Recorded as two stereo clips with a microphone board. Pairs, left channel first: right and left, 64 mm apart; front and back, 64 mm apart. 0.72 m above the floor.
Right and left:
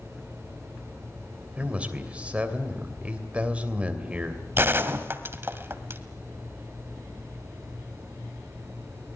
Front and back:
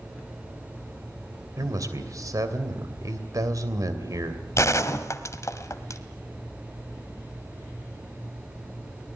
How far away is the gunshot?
About 1.5 m.